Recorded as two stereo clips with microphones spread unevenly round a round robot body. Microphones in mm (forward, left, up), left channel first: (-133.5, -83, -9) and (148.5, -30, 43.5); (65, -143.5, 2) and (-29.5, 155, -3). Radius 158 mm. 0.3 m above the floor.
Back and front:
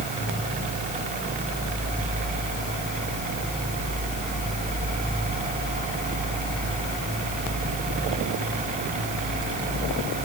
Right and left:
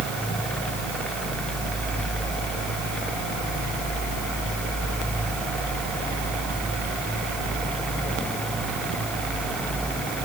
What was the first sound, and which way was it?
Only background noise.